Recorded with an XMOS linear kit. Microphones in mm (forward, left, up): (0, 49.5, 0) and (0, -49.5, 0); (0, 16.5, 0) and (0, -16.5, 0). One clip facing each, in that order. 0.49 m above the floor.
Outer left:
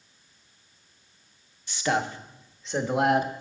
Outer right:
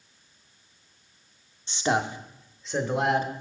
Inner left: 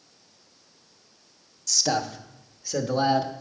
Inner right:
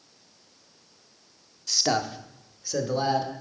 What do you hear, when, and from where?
1.7 s a man speaking: 25° right (ahead or behind), 0.7 m; by 3.3 s 15° left (ahead or behind), 1.0 m